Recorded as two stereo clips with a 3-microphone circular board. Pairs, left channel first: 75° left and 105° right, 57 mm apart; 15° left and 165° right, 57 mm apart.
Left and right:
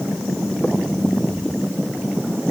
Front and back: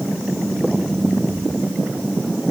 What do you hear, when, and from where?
Only background noise.